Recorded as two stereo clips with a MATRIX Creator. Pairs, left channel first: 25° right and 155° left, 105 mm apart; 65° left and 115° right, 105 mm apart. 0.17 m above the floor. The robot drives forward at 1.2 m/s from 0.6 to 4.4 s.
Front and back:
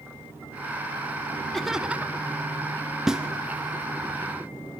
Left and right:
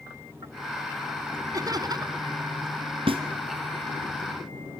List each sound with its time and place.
1.5 s laughter: 105° right, 1.4 m; by 2.3 s 145° right, 1.7 m
3.1 s a snare drum: 120° right, 2 m; by 3.2 s 125° right, 2.5 m